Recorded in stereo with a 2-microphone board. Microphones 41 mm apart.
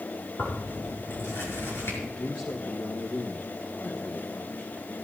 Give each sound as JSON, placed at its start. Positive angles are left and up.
{"t": 0.4, "sound": "tearing paper", "side_deg": 70, "distance_m": 6.0}
{"t": 2.0, "sound": "a man speaking", "side_deg": 40, "distance_m": 1.4}